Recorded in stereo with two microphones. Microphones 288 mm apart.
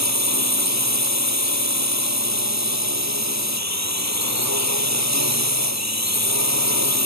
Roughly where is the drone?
Right.